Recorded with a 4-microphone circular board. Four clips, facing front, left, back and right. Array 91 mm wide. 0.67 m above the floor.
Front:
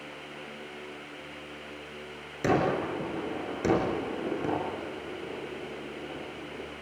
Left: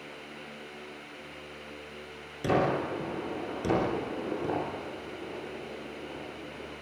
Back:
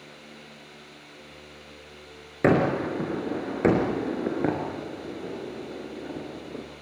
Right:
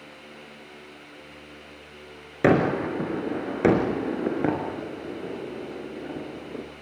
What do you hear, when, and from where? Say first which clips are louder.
2.4 s a gunshot: right 6 dB, back 4 dB; 125° right, 4.5 m